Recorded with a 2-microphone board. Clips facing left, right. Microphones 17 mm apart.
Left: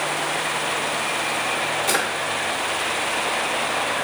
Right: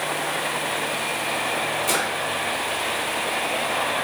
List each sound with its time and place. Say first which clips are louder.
1.9 s a drawer: left 2 dB; 20° left (ahead or behind), 0.9 m